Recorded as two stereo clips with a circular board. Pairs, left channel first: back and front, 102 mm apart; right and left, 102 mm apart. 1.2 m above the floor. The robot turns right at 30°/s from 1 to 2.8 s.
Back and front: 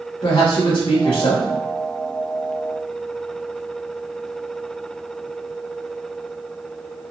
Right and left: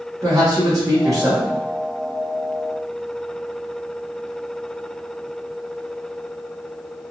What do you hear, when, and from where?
0.2 s a man speaking: 145° left, 0.8 m; by 1.5 s 160° left, 0.8 m